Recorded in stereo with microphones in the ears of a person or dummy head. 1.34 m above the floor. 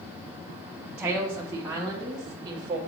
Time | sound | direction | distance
1.0 | a woman speaking | 10° right (ahead or behind) | 0.7 m